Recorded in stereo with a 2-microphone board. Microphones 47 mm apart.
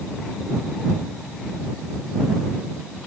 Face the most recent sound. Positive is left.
No sound to turn to.